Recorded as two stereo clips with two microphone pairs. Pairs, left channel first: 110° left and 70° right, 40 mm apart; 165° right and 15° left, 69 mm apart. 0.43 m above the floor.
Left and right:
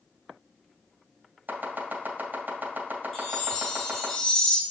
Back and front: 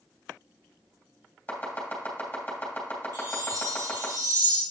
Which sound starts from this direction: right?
Chopping, at 1.5 s.